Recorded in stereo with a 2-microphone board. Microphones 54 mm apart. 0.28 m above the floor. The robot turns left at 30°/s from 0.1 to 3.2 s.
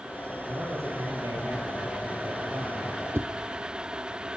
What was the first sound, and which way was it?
A man speaking, 60° right.